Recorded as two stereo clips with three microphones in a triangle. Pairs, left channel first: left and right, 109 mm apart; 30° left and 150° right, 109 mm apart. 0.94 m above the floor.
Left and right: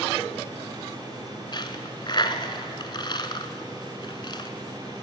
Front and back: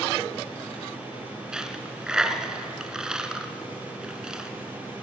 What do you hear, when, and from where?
1.5 s a dropped coin: 130° left, 1.5 m